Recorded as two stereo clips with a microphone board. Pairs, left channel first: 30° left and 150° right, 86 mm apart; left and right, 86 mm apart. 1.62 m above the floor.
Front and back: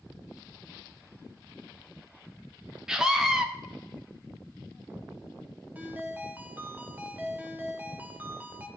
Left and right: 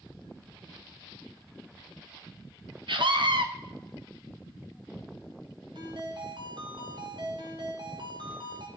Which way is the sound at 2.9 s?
65° right.